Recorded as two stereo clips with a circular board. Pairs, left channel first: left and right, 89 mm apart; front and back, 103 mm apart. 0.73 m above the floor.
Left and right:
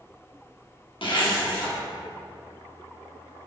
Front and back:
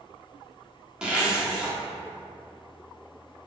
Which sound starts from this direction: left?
A zipper, at 1.0 s.